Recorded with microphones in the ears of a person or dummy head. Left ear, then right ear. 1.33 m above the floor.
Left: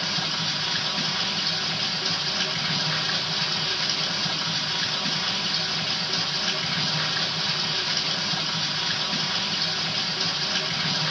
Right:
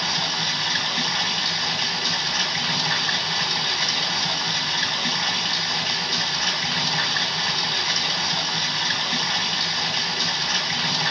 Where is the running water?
35° right (ahead or behind), 1.2 m.